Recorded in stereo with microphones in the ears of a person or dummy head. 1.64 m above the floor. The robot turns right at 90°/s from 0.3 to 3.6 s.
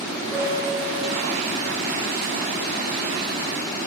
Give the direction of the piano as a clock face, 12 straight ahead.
12 o'clock.